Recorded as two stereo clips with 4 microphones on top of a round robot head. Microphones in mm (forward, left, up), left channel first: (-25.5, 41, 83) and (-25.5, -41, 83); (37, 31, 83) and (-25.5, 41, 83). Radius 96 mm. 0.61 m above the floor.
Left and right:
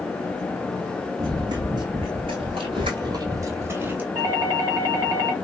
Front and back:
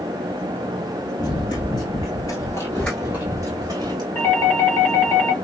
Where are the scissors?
No scissors in this recording.